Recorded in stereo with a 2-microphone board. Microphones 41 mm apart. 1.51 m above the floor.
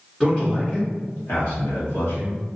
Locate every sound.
0.2 s a man speaking: 25° left (ahead or behind), 0.9 m; by 2.4 s 80° left, 1.1 m